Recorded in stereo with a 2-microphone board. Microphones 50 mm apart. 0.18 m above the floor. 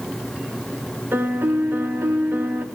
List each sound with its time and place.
1.1 s a piano: 45° right (ahead or behind), 0.6 m